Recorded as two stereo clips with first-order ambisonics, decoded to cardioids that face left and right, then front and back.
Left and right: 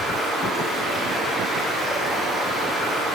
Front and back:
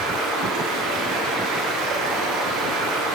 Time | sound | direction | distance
0.0 | running water | straight behind | 9 m